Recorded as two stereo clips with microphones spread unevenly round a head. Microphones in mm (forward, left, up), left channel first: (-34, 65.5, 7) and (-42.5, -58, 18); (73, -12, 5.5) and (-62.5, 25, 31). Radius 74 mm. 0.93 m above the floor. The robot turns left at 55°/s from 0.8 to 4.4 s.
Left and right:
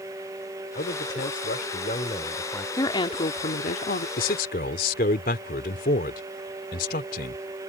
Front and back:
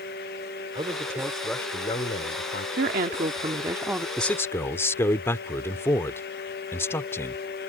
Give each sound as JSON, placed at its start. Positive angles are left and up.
{"t": 0.8, "sound": "a man speaking", "azimuth_deg": 105}
{"t": 2.8, "sound": "a woman speaking", "azimuth_deg": 150}
{"t": 4.2, "sound": "a man speaking", "azimuth_deg": 75}